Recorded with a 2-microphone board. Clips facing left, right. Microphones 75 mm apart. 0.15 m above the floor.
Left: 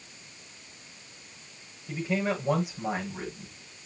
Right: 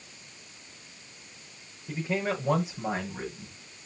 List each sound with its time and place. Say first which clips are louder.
1.9 s a man speaking: left 1 dB; 35° right (ahead or behind), 8.5 m; by 3.5 s 15° right (ahead or behind), 8.5 m